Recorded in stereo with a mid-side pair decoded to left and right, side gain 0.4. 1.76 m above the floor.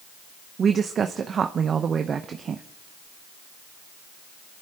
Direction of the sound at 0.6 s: 55° right.